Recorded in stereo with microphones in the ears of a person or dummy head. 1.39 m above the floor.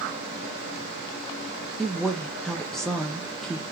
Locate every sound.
1.8 s a woman speaking: centre (ahead or behind), 0.5 m